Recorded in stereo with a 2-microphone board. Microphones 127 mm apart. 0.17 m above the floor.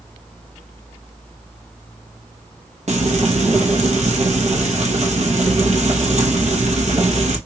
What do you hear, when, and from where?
2.9 s frying: 65° right (ahead or behind), 1.1 m